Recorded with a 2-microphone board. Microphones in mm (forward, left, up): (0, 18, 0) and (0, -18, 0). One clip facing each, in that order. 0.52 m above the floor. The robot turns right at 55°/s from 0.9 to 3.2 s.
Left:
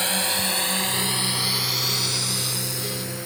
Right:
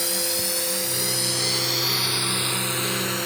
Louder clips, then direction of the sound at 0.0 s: Left 3 dB; 45° left (ahead or behind).